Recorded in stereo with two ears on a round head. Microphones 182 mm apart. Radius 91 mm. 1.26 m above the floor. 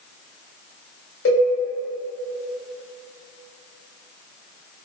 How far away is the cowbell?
About 1.9 m.